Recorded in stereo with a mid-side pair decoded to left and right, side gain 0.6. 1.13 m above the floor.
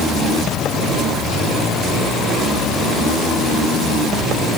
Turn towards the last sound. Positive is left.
No sound to turn to.